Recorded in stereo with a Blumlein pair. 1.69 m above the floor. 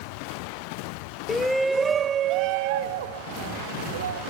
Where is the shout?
15° left, 0.6 m; by 4.2 s 65° right, 1.6 m.